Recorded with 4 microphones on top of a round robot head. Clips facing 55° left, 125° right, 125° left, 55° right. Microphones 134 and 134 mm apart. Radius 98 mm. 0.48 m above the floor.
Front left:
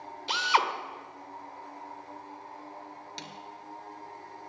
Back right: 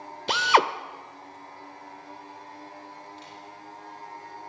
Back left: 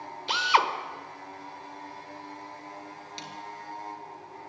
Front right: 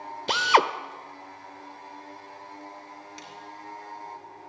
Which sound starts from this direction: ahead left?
A snare drum, at 3.2 s.